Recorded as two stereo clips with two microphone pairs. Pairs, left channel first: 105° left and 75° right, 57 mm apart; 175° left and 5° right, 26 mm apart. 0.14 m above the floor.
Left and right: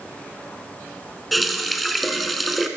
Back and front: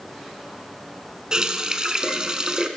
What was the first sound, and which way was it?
A running tap, 15° left.